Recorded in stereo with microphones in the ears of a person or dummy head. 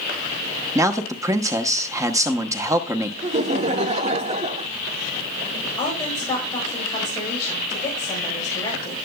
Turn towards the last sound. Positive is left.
turn(degrees=20)  # may be behind; listen again after turning